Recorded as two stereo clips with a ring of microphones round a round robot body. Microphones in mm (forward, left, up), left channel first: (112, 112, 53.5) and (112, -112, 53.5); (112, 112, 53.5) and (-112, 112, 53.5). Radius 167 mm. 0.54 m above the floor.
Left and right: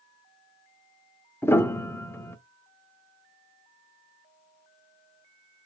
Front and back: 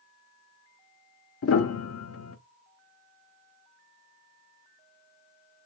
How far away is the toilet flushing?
I don't hear a toilet flushing.